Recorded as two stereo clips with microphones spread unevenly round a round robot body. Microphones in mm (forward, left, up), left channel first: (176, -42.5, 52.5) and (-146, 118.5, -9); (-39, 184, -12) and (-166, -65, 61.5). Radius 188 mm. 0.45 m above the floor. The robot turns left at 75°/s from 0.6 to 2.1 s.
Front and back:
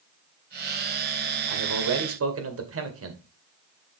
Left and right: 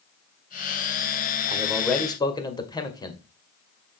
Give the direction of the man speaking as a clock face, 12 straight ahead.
6 o'clock.